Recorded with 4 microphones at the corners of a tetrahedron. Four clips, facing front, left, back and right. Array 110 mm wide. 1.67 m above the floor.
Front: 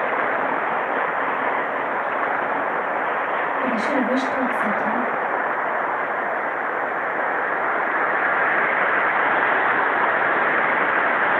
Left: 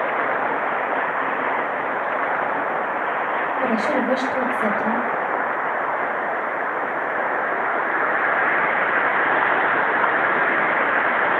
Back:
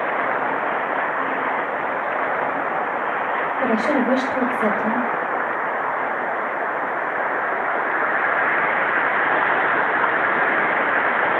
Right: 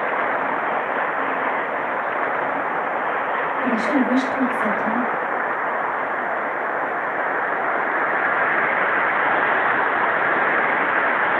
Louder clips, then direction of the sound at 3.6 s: Right 2 dB, back 5 dB; 165° left.